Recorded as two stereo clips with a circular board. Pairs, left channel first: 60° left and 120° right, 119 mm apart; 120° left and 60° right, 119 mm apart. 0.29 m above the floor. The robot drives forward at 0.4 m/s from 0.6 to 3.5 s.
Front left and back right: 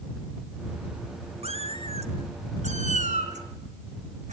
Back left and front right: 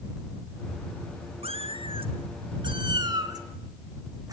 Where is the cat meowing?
90° right, 1.7 m; by 4.3 s 120° right, 1.9 m.